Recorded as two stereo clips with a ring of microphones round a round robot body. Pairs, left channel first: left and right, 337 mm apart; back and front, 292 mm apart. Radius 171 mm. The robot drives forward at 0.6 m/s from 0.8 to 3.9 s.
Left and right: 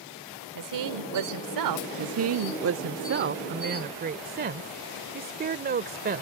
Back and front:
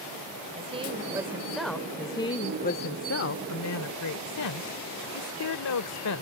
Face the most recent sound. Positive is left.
turn(degrees=-150)